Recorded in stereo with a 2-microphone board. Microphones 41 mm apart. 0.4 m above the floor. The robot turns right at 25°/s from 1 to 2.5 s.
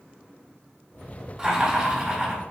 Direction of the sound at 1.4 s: 15° right (ahead or behind).